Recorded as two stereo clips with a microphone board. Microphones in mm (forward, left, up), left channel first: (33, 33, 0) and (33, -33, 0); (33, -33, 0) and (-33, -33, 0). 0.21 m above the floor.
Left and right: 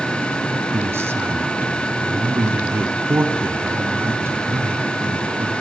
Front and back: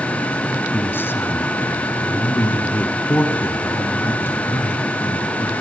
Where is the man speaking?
50° right, 2.0 m.